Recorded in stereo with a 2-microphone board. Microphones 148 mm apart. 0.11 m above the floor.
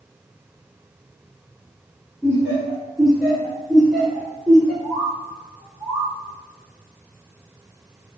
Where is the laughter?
10° right (ahead or behind), 1.3 m; by 4.7 s centre (ahead or behind), 2 m.